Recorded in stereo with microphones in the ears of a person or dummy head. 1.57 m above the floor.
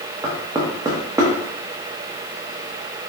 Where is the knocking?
20° right (ahead or behind), 1.0 m.